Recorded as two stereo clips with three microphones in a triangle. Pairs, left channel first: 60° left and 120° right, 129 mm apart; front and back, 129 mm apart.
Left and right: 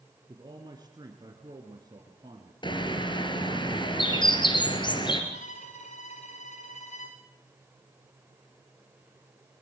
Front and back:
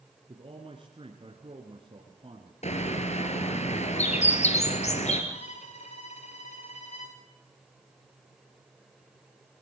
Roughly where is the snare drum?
I don't hear a snare drum.